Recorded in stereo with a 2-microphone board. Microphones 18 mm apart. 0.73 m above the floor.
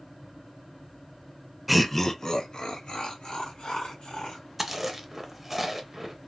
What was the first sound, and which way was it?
Laughter, 10° right (ahead or behind).